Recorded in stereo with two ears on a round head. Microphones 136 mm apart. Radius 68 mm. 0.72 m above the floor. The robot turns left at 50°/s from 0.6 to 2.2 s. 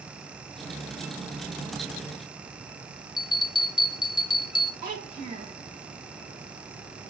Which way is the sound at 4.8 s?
60° right (ahead or behind).